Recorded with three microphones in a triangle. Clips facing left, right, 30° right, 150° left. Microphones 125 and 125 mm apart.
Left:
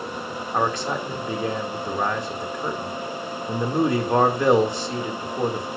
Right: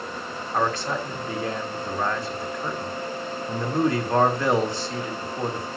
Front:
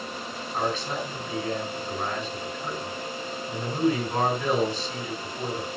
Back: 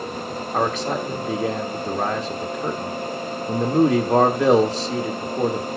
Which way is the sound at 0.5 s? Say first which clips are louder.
Left 1 dB, back 6 dB; 160° left.